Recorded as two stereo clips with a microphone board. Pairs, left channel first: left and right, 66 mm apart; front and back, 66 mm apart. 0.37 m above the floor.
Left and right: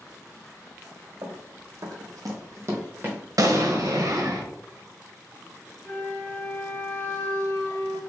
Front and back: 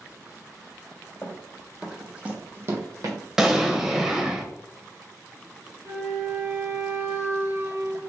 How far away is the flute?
About 0.8 m.